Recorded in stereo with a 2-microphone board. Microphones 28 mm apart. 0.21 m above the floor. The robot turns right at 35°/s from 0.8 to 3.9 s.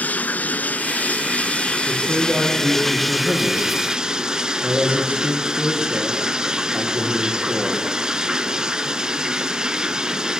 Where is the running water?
95° left, 0.8 m; by 10.4 s 155° right, 0.8 m.